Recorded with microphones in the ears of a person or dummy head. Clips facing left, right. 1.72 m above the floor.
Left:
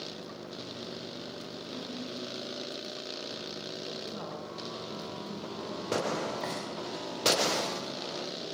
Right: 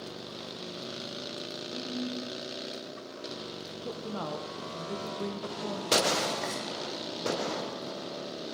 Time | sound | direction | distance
1.7 | a ringtone | 75° left (ahead or behind) | 7.5 m
3.9 | a woman speaking | 75° right (ahead or behind) | 1.0 m
6.4 | frying | 5° right (ahead or behind) | 4.5 m